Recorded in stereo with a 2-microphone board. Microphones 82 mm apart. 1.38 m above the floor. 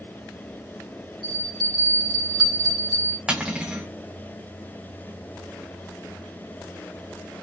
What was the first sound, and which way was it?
A bell, 60° right (ahead or behind).